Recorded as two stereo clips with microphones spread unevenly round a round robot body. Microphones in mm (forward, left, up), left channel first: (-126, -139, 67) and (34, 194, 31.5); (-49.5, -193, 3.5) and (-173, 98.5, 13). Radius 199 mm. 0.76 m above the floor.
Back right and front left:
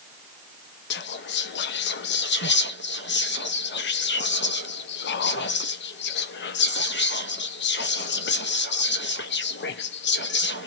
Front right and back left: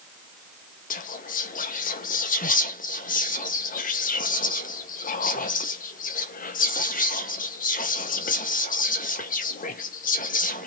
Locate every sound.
0.9 s whispering: 80° right, 0.6 m